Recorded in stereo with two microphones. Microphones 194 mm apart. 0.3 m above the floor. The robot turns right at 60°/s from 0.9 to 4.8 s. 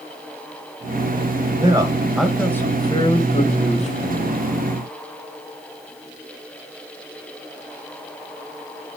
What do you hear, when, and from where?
1.6 s a man speaking: 45° right, 1.6 m; by 4.4 s 125° left, 1.6 m